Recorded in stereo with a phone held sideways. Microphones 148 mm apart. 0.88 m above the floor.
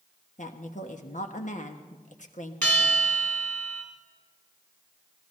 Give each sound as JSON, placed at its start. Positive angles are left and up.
{"t": 0.4, "sound": "a woman speaking", "side_deg": 60, "distance_m": 1.2}
{"t": 2.6, "sound": "a bell", "side_deg": 15, "distance_m": 3.0}